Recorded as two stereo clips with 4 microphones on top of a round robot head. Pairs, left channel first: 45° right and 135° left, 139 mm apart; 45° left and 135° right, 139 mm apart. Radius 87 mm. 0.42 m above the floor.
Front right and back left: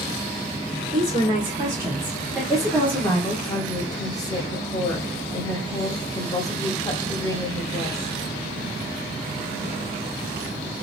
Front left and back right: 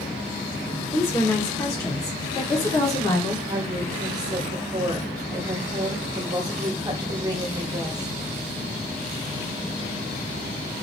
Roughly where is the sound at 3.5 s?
Right.